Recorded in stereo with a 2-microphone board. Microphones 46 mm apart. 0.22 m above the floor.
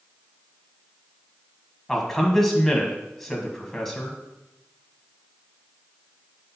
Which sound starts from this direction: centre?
A man speaking, at 1.9 s.